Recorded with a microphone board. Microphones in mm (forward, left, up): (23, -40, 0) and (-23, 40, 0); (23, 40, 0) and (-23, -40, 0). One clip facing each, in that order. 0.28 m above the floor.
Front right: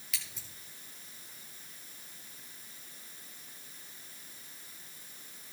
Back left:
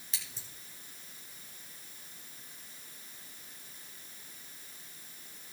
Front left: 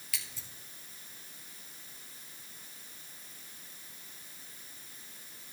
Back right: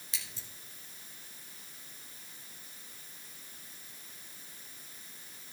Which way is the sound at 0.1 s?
175° left.